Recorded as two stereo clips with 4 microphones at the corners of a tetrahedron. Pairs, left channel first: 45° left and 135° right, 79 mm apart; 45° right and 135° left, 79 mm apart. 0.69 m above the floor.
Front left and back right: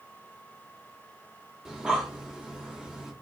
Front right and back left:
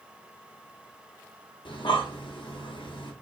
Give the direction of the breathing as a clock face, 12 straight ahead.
2 o'clock.